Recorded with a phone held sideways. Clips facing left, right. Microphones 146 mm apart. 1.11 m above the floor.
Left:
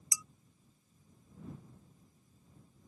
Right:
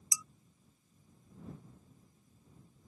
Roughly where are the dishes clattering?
Left.